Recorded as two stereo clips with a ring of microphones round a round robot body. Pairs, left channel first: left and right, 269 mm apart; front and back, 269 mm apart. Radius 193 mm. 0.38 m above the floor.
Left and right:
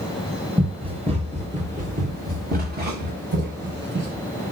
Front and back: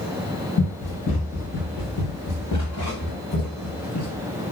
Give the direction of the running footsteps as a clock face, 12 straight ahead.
1 o'clock.